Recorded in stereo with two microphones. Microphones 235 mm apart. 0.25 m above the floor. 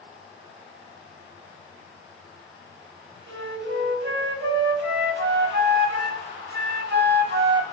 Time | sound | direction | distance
3.3 | a flute | 50° right (ahead or behind) | 0.7 m